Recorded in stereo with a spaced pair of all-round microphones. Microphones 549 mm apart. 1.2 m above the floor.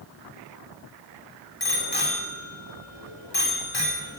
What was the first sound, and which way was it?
A bicycle bell, 45° left (ahead or behind).